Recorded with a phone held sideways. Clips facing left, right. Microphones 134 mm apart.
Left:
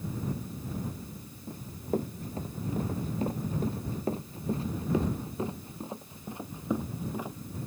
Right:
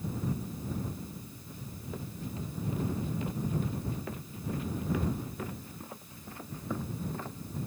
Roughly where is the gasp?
No gasp in this recording.